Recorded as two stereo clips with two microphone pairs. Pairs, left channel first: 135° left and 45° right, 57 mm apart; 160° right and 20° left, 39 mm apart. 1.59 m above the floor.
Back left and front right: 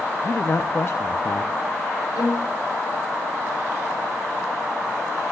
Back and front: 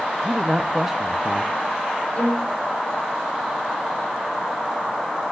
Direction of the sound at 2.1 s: 140° left.